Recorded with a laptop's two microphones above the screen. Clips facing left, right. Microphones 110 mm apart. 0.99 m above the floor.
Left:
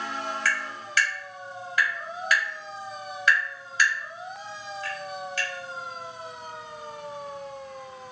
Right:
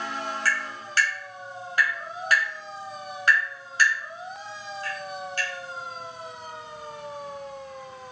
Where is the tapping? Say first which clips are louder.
Right 1 dB; 40° right (ahead or behind), 2 m.